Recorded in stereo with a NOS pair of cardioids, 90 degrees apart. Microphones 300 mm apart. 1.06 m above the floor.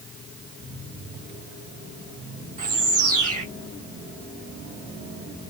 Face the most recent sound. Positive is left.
turn(degrees=-55)